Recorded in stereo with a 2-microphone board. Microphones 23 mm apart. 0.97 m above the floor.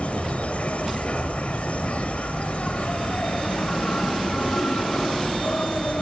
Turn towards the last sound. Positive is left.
turn(degrees=80)